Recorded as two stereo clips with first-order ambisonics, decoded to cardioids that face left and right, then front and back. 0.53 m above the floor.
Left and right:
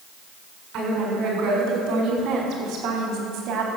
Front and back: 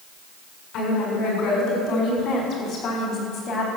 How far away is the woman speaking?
About 6 m.